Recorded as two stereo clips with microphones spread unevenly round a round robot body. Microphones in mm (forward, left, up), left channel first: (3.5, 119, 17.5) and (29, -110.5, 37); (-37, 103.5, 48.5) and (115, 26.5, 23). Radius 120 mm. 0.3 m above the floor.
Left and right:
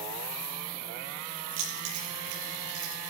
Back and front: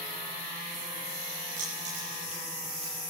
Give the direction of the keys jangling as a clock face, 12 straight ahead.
3 o'clock.